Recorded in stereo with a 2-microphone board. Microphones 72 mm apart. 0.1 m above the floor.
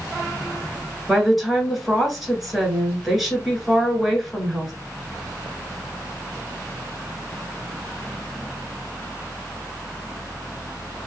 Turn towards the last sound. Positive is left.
turn(degrees=0)  # may be behind; listen again after turning